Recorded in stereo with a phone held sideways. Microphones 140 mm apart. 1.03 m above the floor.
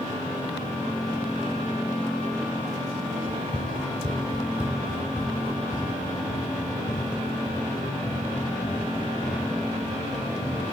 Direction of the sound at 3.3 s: 40° right (ahead or behind).